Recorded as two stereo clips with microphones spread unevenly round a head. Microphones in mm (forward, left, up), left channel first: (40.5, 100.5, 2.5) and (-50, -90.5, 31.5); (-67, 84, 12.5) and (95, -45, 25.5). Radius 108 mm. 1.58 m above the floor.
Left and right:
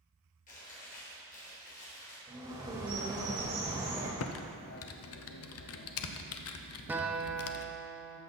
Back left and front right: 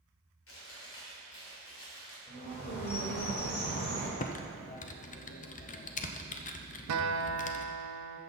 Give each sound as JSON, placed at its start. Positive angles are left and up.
{"t": 0.5, "sound": "chewing", "azimuth_deg": 120, "distance_m": 3.5}
{"t": 2.3, "sound": "a bird", "azimuth_deg": -175, "distance_m": 2.0}
{"t": 4.2, "sound": "typing on a keyboard", "azimuth_deg": 85, "distance_m": 0.7}
{"t": 6.9, "sound": "a guitar", "azimuth_deg": -35, "distance_m": 0.9}